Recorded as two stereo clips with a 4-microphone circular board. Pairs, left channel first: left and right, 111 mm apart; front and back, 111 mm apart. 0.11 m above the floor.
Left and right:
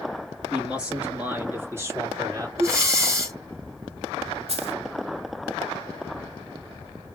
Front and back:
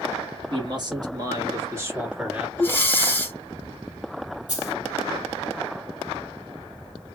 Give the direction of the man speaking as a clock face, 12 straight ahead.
6 o'clock.